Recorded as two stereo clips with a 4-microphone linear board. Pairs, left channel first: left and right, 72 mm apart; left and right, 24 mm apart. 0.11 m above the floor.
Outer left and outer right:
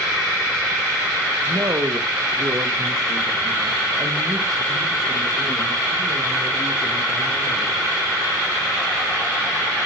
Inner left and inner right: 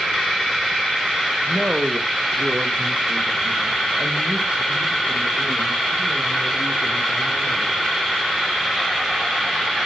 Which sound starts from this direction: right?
A woman speaking, at 1.4 s.